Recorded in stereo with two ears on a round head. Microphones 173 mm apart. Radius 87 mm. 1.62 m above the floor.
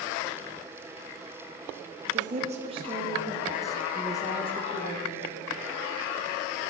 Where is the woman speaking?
40° right (ahead or behind), 2 m; by 5.5 s 55° left (ahead or behind), 1.9 m.